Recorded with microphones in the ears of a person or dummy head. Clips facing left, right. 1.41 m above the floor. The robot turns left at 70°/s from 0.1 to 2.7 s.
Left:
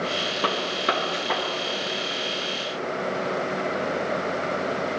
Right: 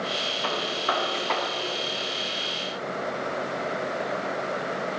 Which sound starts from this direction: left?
A gunshot, at 0.4 s.